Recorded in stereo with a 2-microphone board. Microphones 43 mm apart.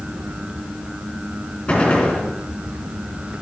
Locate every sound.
1.7 s a gunshot: 30° left (ahead or behind), 3.5 m